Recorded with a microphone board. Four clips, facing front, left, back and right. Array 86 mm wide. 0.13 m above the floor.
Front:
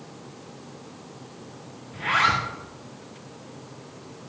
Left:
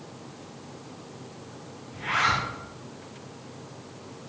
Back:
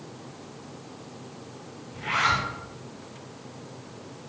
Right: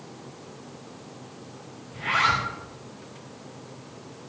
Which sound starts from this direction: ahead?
A zipper, at 1.9 s.